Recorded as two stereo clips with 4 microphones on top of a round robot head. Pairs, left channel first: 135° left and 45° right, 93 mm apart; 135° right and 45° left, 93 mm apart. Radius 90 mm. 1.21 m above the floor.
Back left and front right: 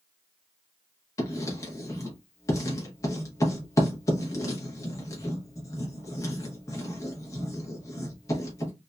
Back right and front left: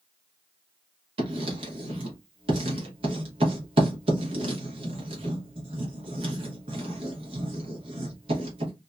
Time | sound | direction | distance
1.2 | writing | 75° left | 0.8 m